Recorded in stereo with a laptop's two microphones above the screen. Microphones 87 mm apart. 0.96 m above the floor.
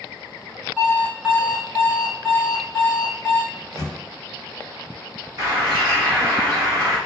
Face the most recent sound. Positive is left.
turn(degrees=-40)  # may be behind; listen again after turning